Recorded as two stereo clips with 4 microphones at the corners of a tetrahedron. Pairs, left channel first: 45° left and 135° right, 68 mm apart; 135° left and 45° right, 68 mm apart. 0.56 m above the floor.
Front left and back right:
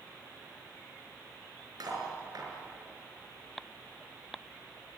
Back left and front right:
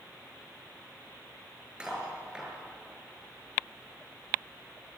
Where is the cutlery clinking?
120° right, 6 m.